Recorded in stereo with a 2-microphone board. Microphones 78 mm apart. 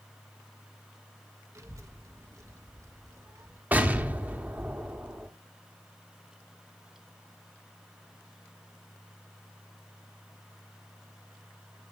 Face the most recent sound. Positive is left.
turn(degrees=-25)  # may be behind; listen again after turning